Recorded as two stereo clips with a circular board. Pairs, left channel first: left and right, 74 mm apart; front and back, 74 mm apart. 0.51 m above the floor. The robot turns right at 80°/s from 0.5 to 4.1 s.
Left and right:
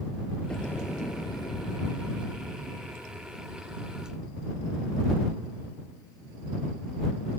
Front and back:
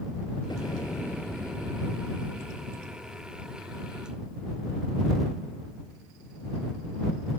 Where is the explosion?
15° left; by 3.5 s 105° right.